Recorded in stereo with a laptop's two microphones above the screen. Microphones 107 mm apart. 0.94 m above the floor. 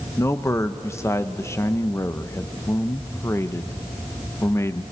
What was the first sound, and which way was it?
A man speaking, 25° left (ahead or behind).